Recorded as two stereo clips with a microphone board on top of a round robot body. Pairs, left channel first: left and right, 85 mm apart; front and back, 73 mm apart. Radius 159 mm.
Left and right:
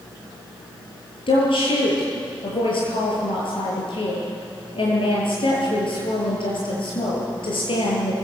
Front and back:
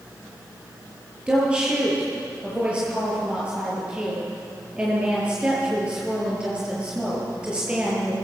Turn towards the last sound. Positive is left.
turn(degrees=105)